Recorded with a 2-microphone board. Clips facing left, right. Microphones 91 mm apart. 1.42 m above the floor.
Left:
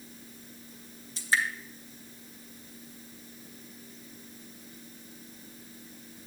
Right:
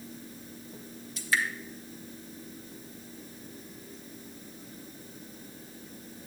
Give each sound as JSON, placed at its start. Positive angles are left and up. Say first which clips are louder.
{"t": 1.2, "sound": "dripping", "louder": "left 1 dB", "side_deg": 30, "distance_m": 1.2}